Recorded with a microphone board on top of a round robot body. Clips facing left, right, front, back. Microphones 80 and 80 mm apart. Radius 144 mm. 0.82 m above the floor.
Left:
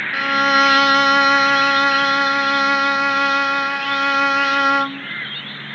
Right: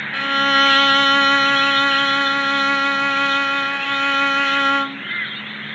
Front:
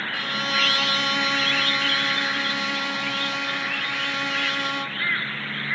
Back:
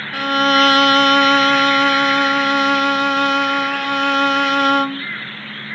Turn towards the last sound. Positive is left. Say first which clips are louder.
# left 2 dB, back 14 dB
turn(degrees=165)